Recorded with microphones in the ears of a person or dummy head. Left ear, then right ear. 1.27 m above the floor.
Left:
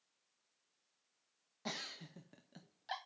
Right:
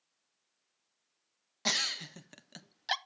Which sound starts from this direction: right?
A giggle, at 1.6 s.